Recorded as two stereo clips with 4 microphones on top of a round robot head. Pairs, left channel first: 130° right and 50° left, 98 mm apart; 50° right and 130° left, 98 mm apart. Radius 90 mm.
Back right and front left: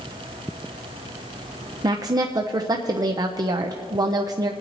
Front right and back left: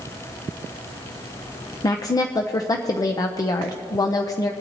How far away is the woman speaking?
About 0.6 m.